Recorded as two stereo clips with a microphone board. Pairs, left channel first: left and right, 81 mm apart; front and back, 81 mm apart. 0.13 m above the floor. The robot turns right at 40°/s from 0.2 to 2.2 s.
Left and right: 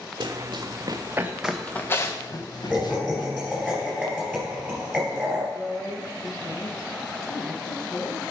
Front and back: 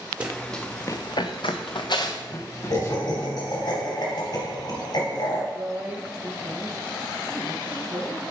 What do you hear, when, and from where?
0.2 s running footsteps: 105° right, 1.1 m; by 3.3 s 60° left, 2 m
2.7 s laughter: 10° right, 3 m
5.5 s a woman speaking: 120° left, 3 m